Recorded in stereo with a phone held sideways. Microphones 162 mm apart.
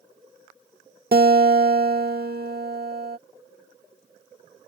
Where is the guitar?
65° right (ahead or behind).